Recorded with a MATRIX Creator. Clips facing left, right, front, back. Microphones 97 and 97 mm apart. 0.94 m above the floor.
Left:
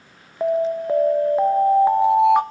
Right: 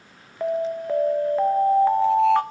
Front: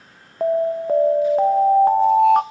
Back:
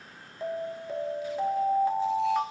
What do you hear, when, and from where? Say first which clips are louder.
0.4 s an alarm: left 4 dB, front 14 dB; 20° left, 0.6 m